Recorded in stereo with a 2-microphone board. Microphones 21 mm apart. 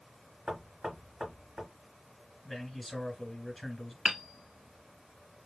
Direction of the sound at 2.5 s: 10° left (ahead or behind).